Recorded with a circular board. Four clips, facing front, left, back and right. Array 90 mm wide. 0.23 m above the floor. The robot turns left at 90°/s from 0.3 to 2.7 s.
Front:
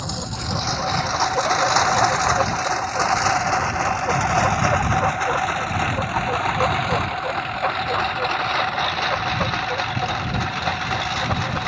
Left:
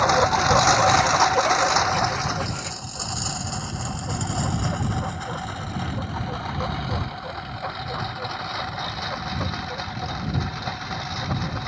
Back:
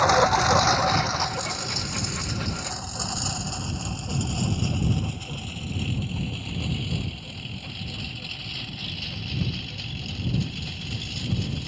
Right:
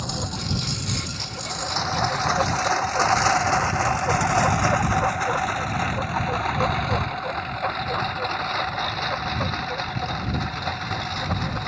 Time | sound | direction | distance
0.0 | a lawn mower | 130° left | ?